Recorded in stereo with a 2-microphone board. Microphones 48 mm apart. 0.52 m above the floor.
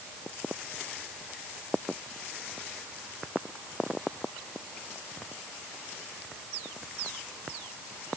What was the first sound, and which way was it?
Only background noise.